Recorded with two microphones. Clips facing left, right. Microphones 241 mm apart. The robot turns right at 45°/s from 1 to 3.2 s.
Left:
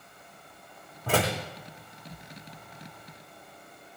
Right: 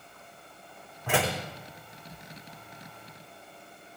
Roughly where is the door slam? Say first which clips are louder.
Left 2 dB; left.